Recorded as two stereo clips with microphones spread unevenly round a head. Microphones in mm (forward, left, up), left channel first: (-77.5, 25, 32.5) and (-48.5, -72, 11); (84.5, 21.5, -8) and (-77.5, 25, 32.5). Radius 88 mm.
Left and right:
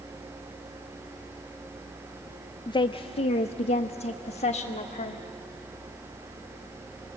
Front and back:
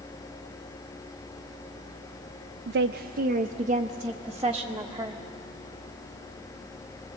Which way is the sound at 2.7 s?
160° left.